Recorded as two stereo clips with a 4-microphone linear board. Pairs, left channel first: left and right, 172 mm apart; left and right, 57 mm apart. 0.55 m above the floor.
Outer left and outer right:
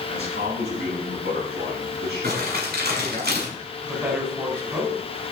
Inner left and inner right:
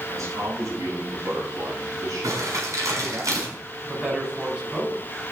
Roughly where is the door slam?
I don't hear a door slam.